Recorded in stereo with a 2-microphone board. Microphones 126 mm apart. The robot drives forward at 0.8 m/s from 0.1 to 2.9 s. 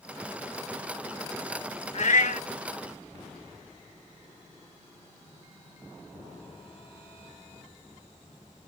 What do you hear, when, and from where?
1.9 s a cat meowing: 60° left (ahead or behind), 0.7 m; by 2.5 s 70° left (ahead or behind), 0.6 m